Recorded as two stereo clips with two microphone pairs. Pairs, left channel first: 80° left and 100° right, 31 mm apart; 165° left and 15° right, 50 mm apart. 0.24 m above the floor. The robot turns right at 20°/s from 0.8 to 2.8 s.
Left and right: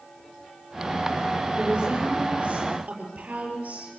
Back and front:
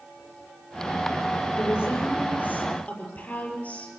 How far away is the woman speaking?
About 6 m.